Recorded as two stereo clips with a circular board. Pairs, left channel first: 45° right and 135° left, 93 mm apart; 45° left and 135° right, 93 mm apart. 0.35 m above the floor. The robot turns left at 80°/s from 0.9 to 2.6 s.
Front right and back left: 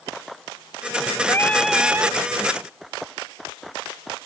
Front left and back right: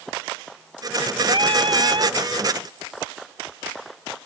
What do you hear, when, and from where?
1.3 s singing: 100° right; by 2.2 s 175° right